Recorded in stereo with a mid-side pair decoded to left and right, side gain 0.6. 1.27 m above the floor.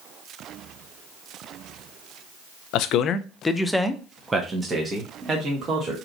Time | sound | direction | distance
2.7 | a man speaking | 70° left | 0.6 m